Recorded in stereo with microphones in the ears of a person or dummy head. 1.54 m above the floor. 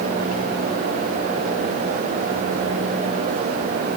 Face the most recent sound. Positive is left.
No sound to turn to.